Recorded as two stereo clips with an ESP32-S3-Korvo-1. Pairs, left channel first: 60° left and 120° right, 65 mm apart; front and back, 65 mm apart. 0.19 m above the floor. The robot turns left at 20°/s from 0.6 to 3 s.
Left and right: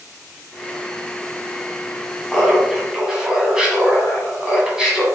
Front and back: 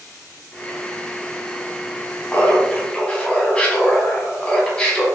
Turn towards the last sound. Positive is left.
turn(degrees=-50)